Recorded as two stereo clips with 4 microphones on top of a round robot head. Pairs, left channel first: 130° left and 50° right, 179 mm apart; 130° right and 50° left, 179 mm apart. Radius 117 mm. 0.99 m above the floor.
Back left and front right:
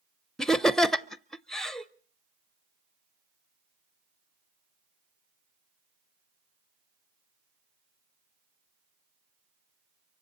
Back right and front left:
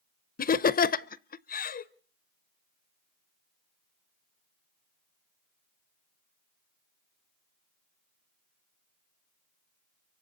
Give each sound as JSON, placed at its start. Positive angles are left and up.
{"t": 0.4, "sound": "laughter", "azimuth_deg": -145, "distance_m": 0.7}